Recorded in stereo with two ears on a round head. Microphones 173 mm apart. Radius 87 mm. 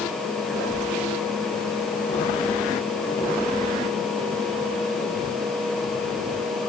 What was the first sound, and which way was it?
Only background noise.